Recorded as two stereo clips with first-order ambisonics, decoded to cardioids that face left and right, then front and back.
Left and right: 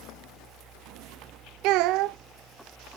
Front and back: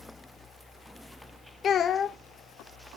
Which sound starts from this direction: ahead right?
A child speaking, at 1.6 s.